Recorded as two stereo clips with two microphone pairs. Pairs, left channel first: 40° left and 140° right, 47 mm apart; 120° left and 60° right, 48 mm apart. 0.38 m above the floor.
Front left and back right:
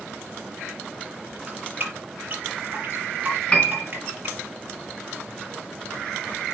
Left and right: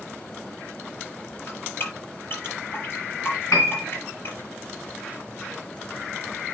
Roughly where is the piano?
Left.